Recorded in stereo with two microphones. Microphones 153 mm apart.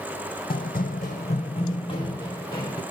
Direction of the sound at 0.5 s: 75° left (ahead or behind).